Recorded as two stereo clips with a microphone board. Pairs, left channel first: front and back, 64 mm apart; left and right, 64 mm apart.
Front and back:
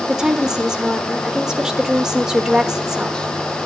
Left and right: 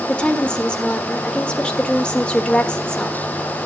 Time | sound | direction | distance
0.1 | a woman speaking | 120° left | 1.3 m